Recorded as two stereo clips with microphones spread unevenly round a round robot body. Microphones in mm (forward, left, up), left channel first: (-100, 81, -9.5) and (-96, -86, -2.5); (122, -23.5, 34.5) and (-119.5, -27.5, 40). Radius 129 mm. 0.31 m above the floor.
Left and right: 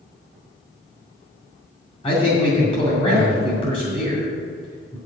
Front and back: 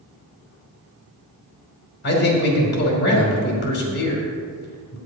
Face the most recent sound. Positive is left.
turn(degrees=35)